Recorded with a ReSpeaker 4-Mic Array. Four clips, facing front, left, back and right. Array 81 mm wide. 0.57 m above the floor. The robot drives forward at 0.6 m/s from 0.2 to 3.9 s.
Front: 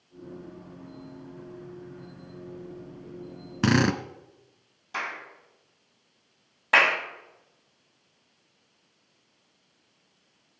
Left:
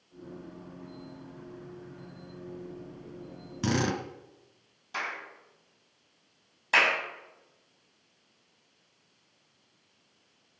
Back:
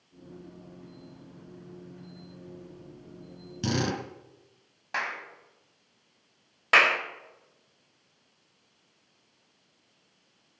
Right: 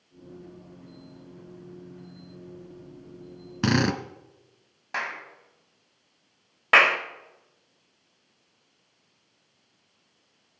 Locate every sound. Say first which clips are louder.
3.6 s a drill: right 5 dB, front 7 dB; 35° right, 1.5 m
4.9 s a clap: right 3 dB, back 1 dB; 130° right, 3.5 m
6.7 s a clap: right 6 dB, even; 105° right, 2 m